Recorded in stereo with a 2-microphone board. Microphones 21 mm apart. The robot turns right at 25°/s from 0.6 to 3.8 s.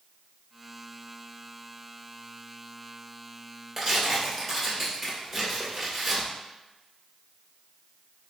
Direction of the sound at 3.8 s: 5° right (ahead or behind).